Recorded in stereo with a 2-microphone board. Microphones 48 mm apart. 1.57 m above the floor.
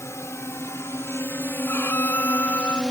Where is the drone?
80° left; by 2.9 s 15° left (ahead or behind).